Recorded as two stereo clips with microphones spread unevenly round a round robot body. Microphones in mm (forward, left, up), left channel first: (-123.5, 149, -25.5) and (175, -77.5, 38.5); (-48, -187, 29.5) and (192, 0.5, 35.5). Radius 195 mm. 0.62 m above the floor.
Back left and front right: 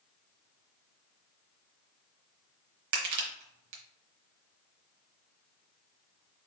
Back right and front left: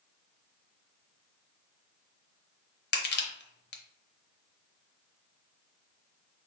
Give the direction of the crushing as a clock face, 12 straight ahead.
3 o'clock.